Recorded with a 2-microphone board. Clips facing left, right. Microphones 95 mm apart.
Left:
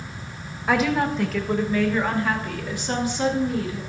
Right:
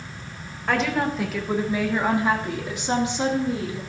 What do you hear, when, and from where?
0.7 s a woman speaking: 5° left (ahead or behind), 1.0 m; by 3.8 s 25° right (ahead or behind), 2 m